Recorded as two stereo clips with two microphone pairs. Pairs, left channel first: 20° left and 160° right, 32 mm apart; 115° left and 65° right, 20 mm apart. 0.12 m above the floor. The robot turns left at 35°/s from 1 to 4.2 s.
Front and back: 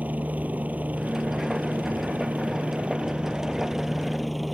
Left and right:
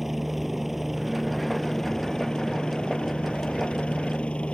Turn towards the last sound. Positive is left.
turn(degrees=110)